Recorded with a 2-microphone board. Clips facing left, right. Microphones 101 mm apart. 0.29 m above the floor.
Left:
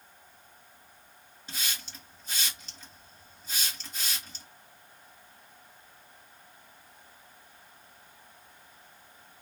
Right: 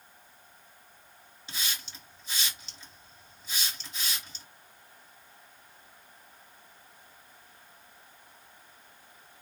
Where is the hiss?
45° left (ahead or behind), 2.5 m.